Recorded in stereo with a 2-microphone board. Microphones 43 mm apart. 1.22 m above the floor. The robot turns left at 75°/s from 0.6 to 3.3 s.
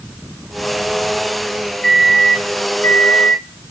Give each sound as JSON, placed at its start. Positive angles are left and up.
{"t": 1.8, "sound": "a microwave", "azimuth_deg": 175, "distance_m": 1.0}